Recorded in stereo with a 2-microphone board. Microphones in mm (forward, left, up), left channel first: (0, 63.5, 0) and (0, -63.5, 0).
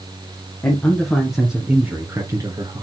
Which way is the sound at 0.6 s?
20° left (ahead or behind).